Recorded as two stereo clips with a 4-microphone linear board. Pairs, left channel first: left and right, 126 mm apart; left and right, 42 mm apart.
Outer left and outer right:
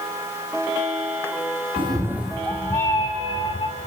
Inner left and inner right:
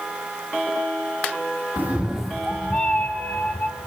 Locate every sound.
1.8 s a cat meowing: 45° right (ahead or behind), 0.7 m; by 3.9 s 45° left (ahead or behind), 2 m